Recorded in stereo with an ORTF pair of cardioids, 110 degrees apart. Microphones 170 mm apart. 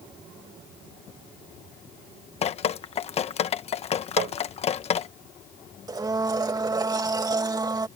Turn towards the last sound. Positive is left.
turn(degrees=-25)